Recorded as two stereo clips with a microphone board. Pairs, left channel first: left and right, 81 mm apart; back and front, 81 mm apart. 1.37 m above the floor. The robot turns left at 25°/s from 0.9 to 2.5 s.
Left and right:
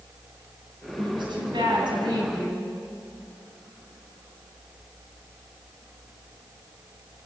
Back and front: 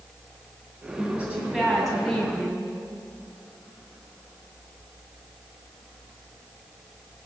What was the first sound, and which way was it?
A woman speaking, 70° right.